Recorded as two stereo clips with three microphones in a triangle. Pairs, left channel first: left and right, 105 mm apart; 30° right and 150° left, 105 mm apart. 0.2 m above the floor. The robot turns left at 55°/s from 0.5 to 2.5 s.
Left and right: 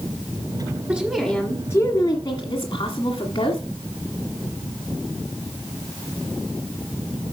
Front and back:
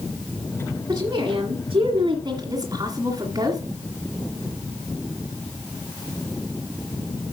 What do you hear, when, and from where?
0.9 s a woman speaking: 155° right, 1.7 m; by 3.6 s 115° left, 1.7 m